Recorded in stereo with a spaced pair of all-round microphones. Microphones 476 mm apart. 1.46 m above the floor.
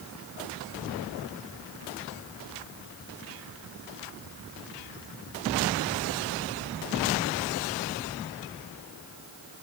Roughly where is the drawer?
No drawer in this recording.